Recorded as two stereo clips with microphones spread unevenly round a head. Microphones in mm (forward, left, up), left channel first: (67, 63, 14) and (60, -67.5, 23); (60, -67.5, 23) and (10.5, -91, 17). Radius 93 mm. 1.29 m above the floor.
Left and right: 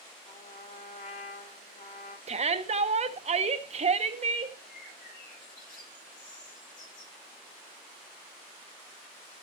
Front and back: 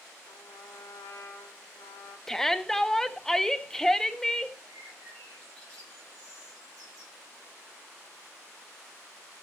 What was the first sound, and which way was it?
A trumpet, 50° left.